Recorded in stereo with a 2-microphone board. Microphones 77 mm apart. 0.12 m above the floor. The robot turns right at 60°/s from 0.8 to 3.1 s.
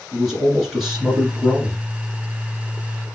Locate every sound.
0.1 s a man speaking: 5° right (ahead or behind), 1.7 m; by 1.8 s 25° right (ahead or behind), 1.7 m